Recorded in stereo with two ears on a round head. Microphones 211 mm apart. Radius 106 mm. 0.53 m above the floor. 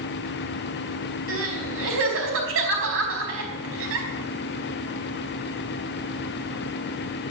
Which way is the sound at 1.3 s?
65° right (ahead or behind).